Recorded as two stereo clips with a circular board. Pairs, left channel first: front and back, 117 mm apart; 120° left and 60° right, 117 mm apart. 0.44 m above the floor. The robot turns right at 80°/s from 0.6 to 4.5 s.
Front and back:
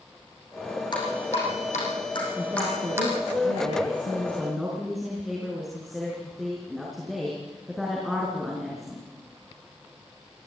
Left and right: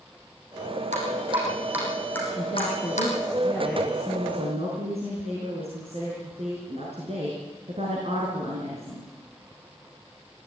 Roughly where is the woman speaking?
Left.